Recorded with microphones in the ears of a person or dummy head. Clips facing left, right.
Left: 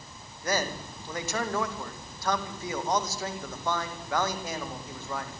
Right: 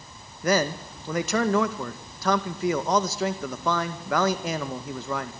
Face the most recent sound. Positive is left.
turn(degrees=-55)  # may be behind; listen again after turning